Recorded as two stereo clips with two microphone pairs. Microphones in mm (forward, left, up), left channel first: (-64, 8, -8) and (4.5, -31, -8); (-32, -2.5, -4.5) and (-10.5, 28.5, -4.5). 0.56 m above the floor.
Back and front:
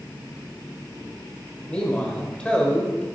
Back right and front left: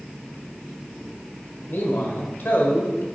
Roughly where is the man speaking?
Behind right.